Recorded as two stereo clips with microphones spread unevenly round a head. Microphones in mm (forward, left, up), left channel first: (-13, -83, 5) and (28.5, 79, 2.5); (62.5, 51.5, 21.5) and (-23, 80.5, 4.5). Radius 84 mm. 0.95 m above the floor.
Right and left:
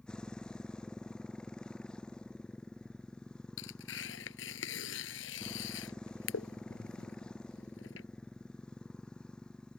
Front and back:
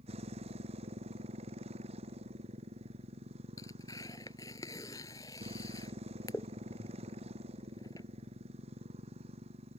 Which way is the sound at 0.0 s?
170° left.